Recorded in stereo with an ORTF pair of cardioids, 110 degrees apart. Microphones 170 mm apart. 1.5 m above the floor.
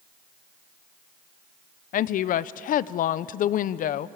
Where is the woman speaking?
55° left, 0.5 m.